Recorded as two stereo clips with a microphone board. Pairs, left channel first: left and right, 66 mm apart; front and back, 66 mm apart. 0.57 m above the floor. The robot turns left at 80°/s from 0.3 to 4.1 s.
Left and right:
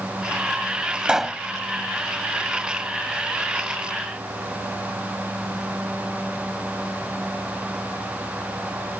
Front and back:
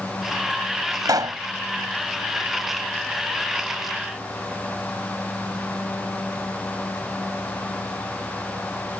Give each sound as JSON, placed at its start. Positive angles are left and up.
{"t": 1.1, "sound": "a pop", "azimuth_deg": -160}